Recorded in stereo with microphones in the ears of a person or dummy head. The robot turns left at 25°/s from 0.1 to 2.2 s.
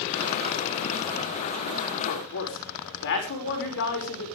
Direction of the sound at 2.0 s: 55° left (ahead or behind).